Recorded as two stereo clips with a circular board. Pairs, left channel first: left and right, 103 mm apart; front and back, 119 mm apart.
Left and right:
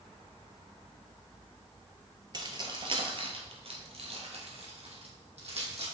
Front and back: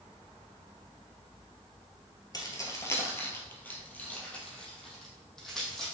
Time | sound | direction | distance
2.3 | keys jangling | 50° right | 1.4 m